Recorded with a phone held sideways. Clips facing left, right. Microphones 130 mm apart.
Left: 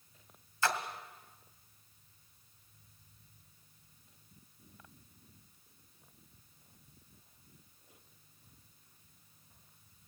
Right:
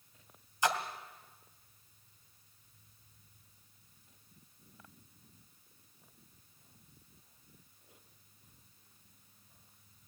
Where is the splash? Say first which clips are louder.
Right 1 dB; 20° right (ahead or behind), 1.7 m.